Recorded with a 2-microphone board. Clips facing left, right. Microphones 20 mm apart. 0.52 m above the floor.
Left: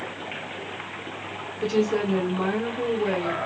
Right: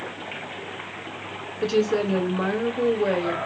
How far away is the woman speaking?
About 2 m.